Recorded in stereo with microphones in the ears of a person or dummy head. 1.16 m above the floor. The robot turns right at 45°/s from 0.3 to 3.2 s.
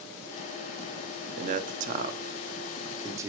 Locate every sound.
1.4 s a man speaking: 35° right (ahead or behind), 0.7 m; by 3.3 s 20° right (ahead or behind), 0.7 m